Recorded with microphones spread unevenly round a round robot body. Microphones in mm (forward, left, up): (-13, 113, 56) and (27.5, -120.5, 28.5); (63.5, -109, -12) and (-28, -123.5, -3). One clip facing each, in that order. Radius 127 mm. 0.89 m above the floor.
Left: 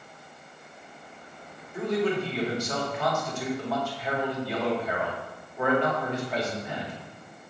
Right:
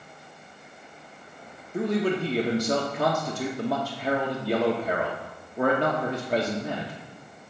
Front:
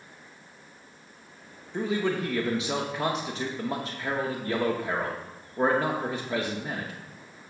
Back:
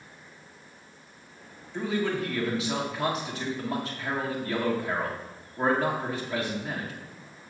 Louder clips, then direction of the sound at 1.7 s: Right 1 dB, front 1 dB; 45° right.